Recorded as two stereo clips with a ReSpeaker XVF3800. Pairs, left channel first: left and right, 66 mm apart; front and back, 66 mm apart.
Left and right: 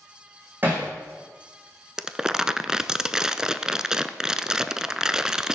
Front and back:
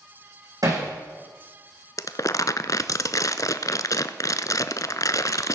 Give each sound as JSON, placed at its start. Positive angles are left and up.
{"t": 0.6, "sound": "hammering", "azimuth_deg": -150, "distance_m": 8.0}
{"t": 2.0, "sound": "crumpling", "azimuth_deg": -10, "distance_m": 0.7}